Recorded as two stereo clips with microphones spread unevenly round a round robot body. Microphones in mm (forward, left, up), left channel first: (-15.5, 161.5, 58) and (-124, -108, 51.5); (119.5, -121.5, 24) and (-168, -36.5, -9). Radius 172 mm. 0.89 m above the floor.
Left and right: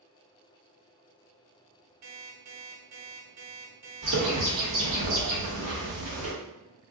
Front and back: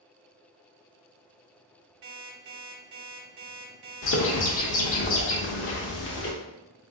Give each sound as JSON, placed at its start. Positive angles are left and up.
{"t": 2.0, "sound": "an alarm clock", "azimuth_deg": -150, "distance_m": 1.1}
{"t": 4.0, "sound": "a bird", "azimuth_deg": -65, "distance_m": 0.7}